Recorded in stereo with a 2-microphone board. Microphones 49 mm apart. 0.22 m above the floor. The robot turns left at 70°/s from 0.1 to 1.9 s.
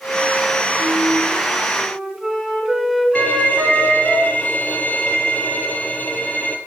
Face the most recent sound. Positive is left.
turn(degrees=35)  # may be behind; listen again after turning